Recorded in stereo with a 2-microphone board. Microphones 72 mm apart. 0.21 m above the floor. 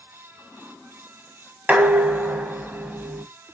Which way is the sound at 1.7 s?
20° right (ahead or behind).